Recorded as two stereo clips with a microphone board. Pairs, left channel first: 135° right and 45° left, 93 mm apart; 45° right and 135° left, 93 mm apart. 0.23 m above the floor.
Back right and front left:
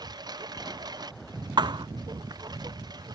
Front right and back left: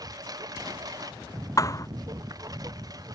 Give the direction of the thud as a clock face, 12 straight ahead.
12 o'clock.